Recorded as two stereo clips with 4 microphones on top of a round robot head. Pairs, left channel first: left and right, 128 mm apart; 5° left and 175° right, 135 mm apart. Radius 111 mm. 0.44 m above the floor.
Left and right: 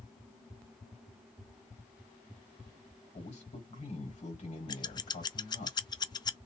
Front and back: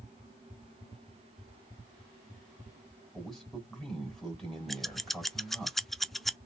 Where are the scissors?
95° left, 0.5 m.